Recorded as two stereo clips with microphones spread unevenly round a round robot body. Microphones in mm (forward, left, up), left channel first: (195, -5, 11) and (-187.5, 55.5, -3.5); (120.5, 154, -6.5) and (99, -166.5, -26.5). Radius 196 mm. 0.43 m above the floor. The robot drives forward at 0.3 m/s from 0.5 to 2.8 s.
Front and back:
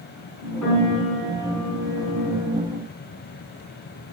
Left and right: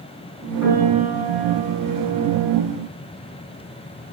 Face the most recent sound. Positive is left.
turn(degrees=40)